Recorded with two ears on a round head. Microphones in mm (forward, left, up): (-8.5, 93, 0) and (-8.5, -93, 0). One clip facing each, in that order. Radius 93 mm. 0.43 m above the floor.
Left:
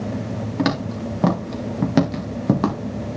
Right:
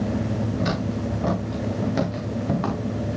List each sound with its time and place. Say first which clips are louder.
0.6 s footsteps: left 3 dB; 75° left (ahead or behind), 3.5 m; by 2.8 s 55° left (ahead or behind), 2 m